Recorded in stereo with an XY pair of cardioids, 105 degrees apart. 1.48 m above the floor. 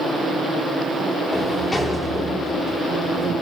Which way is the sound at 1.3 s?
20° left.